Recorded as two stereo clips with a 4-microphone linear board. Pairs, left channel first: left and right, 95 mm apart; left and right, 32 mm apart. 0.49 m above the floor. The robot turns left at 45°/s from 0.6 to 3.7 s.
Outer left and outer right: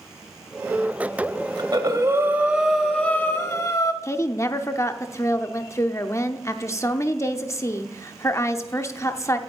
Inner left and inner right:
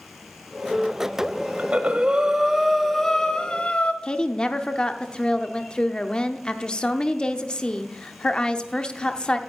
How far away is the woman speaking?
About 0.7 m.